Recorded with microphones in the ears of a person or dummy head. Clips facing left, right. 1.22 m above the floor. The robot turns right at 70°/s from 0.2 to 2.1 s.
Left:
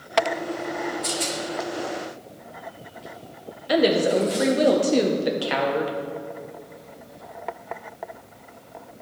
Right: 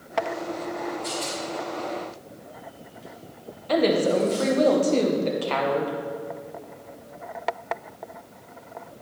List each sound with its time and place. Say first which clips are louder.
1.0 s a rattle: left 2 dB; 55° left (ahead or behind), 1.3 m; by 4.7 s 10° right (ahead or behind), 1.3 m
3.7 s a woman speaking: left 1 dB; 15° left (ahead or behind), 0.7 m